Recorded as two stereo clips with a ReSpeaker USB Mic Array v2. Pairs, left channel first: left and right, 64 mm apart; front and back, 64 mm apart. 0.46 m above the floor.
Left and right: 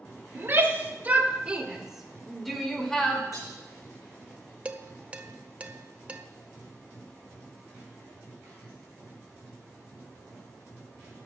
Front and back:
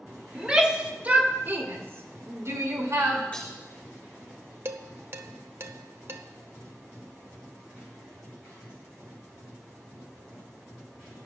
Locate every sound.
0.3 s a shout: 105° right, 1.4 m; by 3.2 s 165° left, 1.7 m
3.3 s breaking glass: 70° left, 4 m
4.7 s dishes clattering: 150° right, 0.6 m